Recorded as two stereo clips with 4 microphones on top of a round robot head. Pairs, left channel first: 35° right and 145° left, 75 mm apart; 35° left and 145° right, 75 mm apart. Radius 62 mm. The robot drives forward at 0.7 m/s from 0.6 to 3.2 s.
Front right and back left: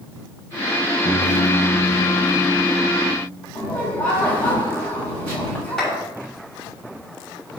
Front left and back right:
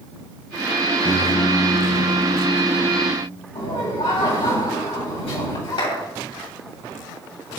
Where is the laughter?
30° left, 6.5 m.